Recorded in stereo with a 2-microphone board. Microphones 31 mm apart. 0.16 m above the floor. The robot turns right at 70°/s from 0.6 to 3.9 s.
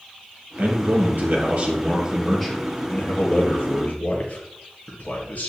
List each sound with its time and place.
0.6 s a man speaking: 120° right, 3.5 m; by 5.5 s 110° left, 3.5 m